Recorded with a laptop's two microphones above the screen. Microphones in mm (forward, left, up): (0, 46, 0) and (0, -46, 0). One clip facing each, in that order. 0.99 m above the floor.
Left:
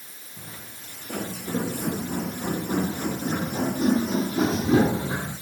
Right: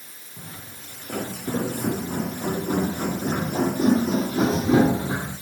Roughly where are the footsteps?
Right.